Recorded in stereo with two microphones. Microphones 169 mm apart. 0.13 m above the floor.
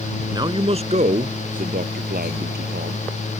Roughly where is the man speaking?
Right.